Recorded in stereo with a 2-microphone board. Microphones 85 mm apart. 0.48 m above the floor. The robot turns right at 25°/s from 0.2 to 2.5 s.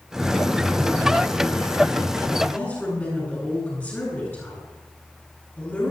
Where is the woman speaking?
20° left (ahead or behind), 8 m.